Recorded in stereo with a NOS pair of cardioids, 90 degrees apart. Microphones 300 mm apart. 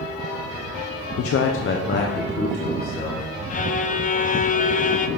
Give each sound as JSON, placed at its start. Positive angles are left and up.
{"t": 1.2, "sound": "a man speaking", "azimuth_deg": 50, "distance_m": 0.6}
{"t": 3.5, "sound": "a violin", "azimuth_deg": 25, "distance_m": 0.7}